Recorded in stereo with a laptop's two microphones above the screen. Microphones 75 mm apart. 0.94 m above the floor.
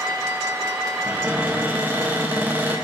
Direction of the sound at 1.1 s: 25° right (ahead or behind).